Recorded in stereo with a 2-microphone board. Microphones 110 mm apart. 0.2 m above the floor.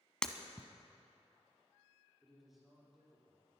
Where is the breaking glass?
5° left (ahead or behind), 0.9 m.